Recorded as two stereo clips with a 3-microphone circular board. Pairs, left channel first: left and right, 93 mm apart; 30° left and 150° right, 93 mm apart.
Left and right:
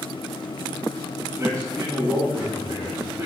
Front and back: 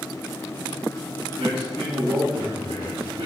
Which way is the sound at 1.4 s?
155° right.